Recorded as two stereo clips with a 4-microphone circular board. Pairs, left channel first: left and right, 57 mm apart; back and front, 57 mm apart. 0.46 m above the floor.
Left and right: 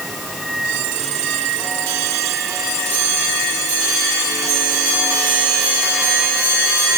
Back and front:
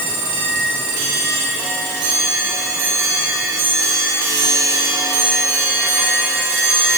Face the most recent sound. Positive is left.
No sound to turn to.